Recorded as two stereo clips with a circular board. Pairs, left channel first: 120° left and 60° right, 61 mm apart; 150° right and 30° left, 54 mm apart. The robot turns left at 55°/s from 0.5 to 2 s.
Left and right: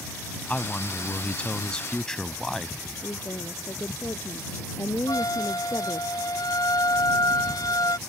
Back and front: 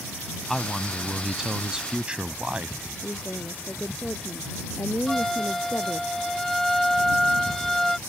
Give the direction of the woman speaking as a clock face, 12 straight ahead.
7 o'clock.